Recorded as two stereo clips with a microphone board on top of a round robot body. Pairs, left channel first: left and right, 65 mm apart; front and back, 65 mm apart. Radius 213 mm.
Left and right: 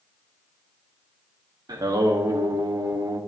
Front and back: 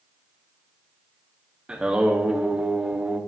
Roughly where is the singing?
Right.